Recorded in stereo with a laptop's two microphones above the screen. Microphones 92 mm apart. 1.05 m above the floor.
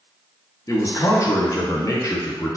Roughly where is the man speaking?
Left.